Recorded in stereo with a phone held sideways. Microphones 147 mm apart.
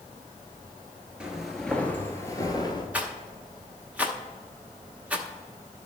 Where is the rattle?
10° right (ahead or behind), 0.9 m.